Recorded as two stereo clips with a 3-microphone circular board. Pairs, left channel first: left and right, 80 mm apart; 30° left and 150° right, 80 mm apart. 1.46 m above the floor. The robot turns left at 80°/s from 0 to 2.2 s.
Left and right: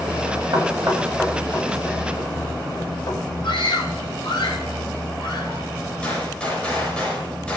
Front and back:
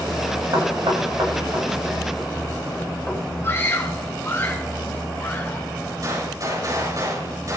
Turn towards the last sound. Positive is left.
turn(degrees=165)